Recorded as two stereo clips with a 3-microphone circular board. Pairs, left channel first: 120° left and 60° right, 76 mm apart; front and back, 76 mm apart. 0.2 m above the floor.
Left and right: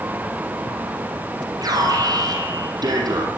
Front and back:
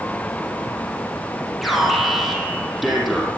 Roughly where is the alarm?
Right.